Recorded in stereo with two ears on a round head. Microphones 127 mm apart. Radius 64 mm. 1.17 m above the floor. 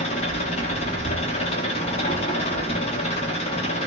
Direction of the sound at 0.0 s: 45° left (ahead or behind).